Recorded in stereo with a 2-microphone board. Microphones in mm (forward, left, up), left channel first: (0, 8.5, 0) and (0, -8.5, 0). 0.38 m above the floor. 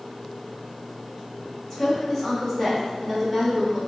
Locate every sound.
1.7 s a woman speaking: 20° left (ahead or behind), 1.6 m; by 3.8 s 10° right (ahead or behind), 0.9 m